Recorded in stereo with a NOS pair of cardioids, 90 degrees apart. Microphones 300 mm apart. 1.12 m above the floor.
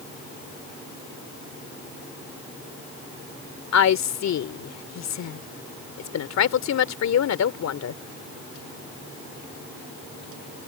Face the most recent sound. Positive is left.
turn(degrees=60)